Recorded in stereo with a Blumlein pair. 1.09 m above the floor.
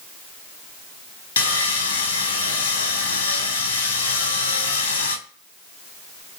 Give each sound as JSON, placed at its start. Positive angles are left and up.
{"t": 1.4, "sound": "sawing", "azimuth_deg": 65, "distance_m": 0.6}